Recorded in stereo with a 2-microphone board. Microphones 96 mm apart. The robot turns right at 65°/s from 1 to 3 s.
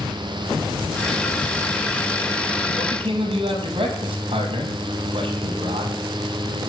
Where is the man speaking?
60° right (ahead or behind), 5.5 m; by 6.0 s 75° right (ahead or behind), 5.5 m.